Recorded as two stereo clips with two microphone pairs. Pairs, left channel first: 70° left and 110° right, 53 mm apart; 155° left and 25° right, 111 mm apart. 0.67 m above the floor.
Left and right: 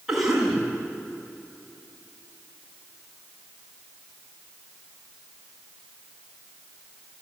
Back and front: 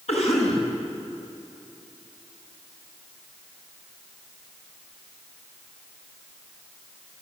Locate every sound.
0.1 s a cough: 170° left, 7 m